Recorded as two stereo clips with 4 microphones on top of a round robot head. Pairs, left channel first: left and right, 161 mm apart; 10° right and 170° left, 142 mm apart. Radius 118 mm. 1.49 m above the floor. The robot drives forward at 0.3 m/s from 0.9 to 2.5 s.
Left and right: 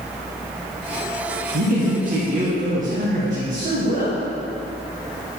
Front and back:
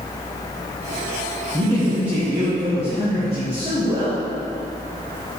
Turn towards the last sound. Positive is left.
turn(degrees=-130)